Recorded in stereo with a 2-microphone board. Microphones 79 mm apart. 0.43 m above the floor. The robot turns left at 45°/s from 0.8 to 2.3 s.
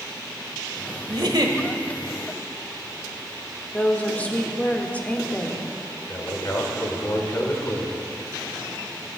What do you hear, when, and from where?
1.1 s a giggle: 65° right (ahead or behind), 1.1 m; by 1.6 s 55° right (ahead or behind), 1.1 m
3.7 s a woman speaking: 20° left (ahead or behind), 1.0 m
6.1 s a man speaking: 40° left (ahead or behind), 1.8 m